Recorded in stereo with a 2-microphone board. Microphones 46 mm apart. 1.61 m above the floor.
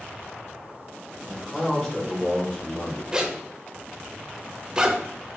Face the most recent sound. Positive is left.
turn(degrees=-20)  # may be behind; listen again after turning